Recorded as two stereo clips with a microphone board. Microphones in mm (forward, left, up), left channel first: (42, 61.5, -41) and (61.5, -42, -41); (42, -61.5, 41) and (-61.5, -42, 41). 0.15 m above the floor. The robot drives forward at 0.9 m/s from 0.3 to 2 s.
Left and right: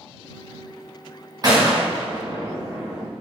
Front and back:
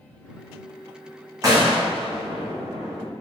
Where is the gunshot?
130° right, 3 m; by 3.1 s 140° right, 3.5 m.